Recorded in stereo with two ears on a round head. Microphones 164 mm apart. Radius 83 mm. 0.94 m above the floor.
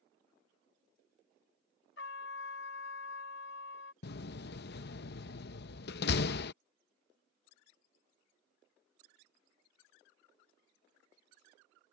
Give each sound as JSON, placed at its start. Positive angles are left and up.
{"t": 2.0, "sound": "a trumpet", "side_deg": 70}
{"t": 4.0, "sound": "a door slam", "side_deg": 60}